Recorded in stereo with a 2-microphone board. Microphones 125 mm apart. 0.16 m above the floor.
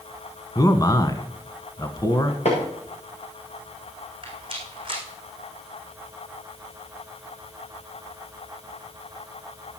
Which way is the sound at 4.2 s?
45° right (ahead or behind).